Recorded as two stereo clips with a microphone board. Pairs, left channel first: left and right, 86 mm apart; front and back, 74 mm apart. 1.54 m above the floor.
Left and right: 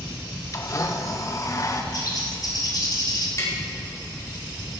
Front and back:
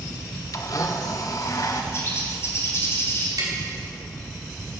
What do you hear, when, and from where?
0.5 s a blender: 40° left, 1.1 m
1.9 s a bird: 50° left, 3 m
3.4 s tapping: 140° left, 4 m